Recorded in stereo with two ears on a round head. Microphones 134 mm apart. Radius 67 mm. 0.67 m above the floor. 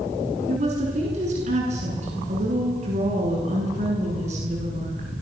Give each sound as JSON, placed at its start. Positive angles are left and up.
{"t": 0.5, "sound": "a woman speaking", "side_deg": -50, "distance_m": 7.5}